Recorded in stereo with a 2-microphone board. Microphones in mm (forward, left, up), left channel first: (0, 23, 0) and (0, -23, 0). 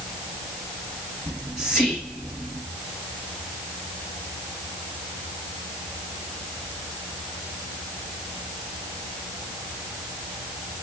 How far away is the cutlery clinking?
I don't hear cutlery clinking.